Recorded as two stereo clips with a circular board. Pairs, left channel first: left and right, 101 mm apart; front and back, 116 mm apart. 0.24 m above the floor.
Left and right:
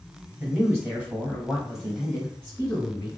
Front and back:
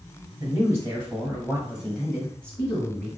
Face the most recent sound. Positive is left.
turn(degrees=50)